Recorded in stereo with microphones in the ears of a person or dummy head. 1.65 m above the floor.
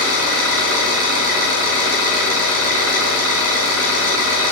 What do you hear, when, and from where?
0.0 s an engine running: 70° right (ahead or behind), 2.5 m